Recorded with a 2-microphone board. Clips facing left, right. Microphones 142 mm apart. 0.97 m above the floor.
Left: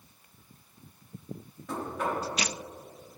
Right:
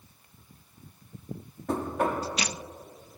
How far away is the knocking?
About 1.1 m.